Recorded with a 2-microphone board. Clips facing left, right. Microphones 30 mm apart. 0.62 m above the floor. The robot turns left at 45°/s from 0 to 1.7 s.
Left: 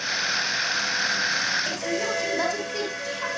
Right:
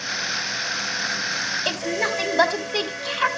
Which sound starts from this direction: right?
A woman speaking, at 1.6 s.